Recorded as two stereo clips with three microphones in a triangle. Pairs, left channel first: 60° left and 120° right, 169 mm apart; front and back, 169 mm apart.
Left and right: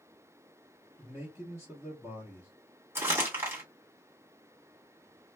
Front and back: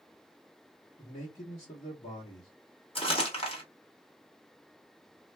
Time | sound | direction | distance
1.0 | a man speaking | 50° right | 1.0 m
3.0 | crumpling | 50° right | 1.7 m